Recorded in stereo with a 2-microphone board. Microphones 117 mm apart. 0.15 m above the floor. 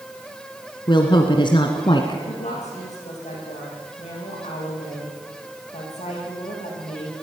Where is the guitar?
I don't hear a guitar.